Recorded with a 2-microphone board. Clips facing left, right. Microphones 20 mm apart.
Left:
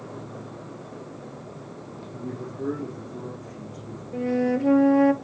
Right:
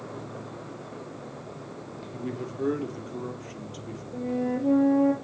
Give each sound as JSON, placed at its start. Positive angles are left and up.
{"t": 0.0, "sound": "an insect", "side_deg": 65, "distance_m": 5.0}
{"t": 2.1, "sound": "a man speaking", "side_deg": -60, "distance_m": 3.0}
{"t": 4.1, "sound": "a flute", "side_deg": 55, "distance_m": 1.3}